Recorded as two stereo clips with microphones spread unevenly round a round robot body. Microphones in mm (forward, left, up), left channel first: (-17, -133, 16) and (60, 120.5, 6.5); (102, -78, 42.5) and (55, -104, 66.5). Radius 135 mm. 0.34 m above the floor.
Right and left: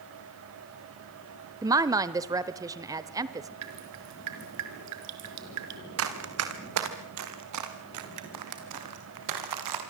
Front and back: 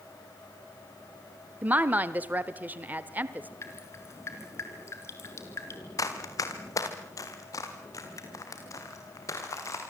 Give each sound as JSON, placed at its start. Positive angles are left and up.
{"t": 1.6, "sound": "a woman speaking", "azimuth_deg": 130, "distance_m": 1.0}
{"t": 3.6, "sound": "dripping", "azimuth_deg": 50, "distance_m": 4.5}
{"t": 6.0, "sound": "running footsteps", "azimuth_deg": 35, "distance_m": 4.0}